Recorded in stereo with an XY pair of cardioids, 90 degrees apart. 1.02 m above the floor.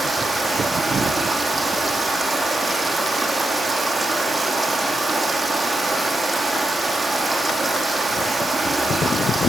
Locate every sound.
0.0 s running water: 20° right, 5 m